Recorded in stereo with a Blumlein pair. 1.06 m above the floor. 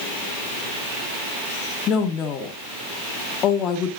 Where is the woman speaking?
30° left, 1.7 m.